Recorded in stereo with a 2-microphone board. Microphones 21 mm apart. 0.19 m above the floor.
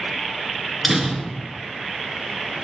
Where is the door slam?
5° right (ahead or behind), 1.9 m.